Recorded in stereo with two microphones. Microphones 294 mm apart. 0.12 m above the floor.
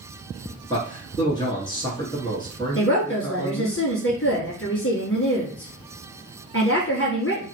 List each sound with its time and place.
0.7 s a man speaking: 15° left (ahead or behind), 1.2 m
2.8 s a woman speaking: 45° left (ahead or behind), 1.5 m